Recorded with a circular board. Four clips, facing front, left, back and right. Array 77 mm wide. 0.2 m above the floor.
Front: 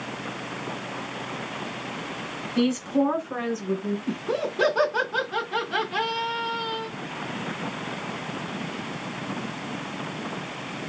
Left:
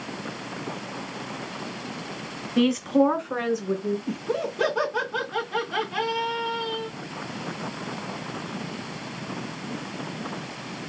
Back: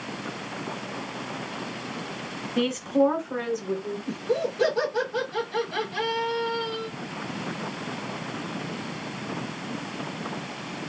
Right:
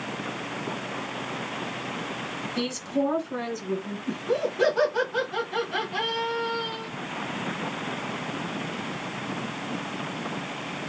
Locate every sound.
2.6 s a woman speaking: 110° left, 1.3 m; by 4.0 s 70° left, 2.5 m
4.1 s laughter: 25° left, 2.5 m